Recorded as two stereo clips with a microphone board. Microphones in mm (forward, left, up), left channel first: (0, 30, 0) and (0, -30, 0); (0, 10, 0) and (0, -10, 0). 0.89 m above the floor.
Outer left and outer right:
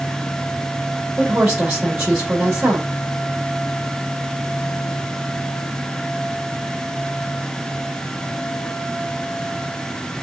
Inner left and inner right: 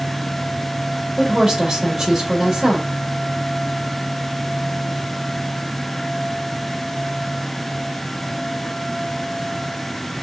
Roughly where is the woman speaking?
Centre.